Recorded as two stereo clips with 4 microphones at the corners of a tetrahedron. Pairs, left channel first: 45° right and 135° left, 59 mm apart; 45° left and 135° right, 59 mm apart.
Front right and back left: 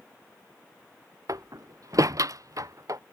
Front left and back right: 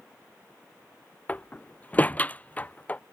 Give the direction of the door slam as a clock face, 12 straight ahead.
8 o'clock.